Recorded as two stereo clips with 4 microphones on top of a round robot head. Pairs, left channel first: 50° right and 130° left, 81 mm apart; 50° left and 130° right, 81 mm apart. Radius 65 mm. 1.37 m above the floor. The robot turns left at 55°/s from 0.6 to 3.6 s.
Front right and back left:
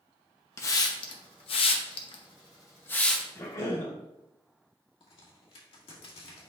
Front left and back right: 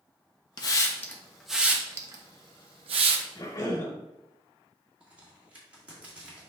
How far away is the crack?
About 2.0 m.